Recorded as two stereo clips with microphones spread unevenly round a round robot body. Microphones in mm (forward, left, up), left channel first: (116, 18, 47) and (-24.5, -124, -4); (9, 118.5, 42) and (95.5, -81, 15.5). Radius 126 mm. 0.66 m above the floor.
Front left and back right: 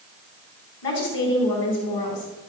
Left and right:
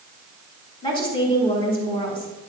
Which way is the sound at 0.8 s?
45° left.